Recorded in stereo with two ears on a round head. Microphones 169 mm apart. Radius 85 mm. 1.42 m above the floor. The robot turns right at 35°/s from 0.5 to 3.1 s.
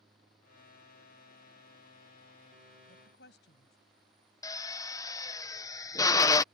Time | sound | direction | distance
2.9 | a woman speaking | 50° left (ahead or behind) | ?
4.4 | a drill | 20° left (ahead or behind) | ?